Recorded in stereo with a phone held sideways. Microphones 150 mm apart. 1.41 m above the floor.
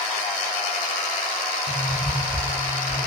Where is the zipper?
45° right (ahead or behind), 10 m.